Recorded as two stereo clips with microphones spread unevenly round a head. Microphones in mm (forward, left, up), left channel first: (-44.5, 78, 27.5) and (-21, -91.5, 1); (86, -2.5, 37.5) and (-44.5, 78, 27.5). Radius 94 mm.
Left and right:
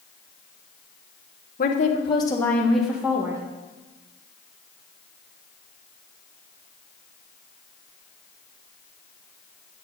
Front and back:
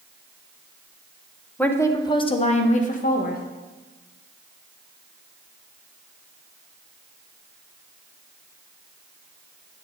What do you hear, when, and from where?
1.6 s a woman speaking: 50° left, 1.1 m; by 3.4 s 10° right, 1.6 m